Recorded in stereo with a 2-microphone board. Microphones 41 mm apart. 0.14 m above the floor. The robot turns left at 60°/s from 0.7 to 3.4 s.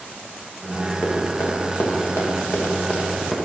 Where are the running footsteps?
65° left (ahead or behind), 3 m; by 3.4 s 5° left (ahead or behind), 2.5 m.